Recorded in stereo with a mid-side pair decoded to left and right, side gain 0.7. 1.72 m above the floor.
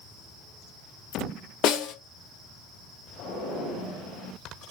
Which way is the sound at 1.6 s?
50° left.